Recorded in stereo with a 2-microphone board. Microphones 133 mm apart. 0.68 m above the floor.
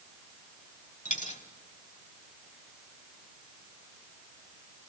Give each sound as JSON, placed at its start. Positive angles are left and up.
{"t": 1.1, "sound": "a dropped coin", "side_deg": 70, "distance_m": 1.7}